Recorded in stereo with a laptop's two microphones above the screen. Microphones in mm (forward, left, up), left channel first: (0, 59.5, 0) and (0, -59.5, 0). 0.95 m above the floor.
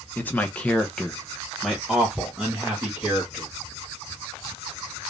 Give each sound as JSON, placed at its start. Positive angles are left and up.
{"t": 0.2, "sound": "a man speaking", "side_deg": 15, "distance_m": 0.9}